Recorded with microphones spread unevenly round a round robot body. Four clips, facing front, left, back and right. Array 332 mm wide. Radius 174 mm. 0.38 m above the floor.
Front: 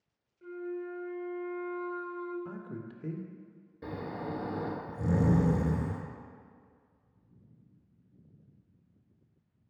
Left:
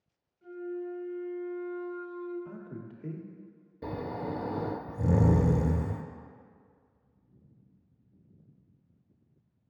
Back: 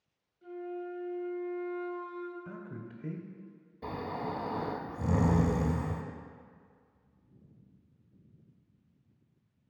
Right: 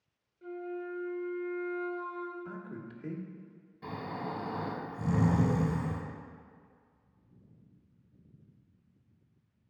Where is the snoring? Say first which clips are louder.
Left 3 dB, back 2 dB; 85° left, 0.6 m.